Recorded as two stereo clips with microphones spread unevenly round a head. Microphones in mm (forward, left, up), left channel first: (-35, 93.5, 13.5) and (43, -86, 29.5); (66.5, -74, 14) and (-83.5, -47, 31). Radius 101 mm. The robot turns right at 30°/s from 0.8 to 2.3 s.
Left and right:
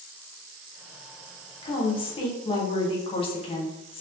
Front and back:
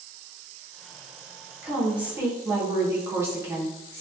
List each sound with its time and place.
1.6 s a woman speaking: 75° left, 0.6 m; by 4.0 s 95° left, 0.6 m